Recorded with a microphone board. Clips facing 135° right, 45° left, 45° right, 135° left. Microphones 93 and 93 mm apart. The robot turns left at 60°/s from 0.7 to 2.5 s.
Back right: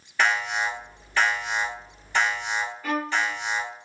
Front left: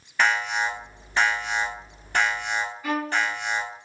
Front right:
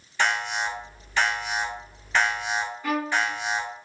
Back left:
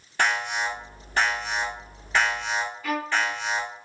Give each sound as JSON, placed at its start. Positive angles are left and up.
{"t": 0.2, "sound": "an alarm", "azimuth_deg": 135, "distance_m": 1.2}
{"t": 2.8, "sound": "a violin", "azimuth_deg": -25, "distance_m": 1.9}